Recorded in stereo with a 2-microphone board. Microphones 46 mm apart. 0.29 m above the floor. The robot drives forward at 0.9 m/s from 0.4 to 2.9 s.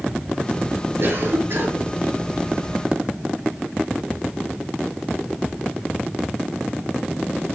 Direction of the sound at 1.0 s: 65° right (ahead or behind).